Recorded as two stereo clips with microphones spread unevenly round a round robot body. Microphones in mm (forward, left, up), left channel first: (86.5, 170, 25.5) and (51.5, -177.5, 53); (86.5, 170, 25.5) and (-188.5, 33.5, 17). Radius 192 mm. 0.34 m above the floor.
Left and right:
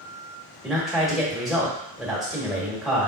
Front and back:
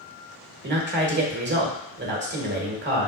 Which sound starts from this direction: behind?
A man speaking, at 0.6 s.